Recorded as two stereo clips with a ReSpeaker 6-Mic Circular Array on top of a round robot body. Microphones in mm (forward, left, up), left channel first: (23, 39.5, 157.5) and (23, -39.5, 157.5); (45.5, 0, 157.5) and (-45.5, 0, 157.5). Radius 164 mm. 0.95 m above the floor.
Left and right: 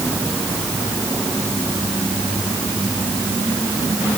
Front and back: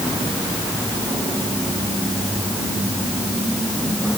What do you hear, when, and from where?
Only background noise.